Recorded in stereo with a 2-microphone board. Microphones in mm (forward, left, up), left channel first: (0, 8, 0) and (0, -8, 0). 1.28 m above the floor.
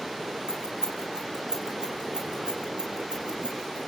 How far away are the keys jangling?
About 3.5 m.